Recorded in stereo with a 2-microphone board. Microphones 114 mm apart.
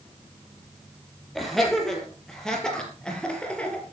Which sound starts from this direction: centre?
Laughter, at 1.4 s.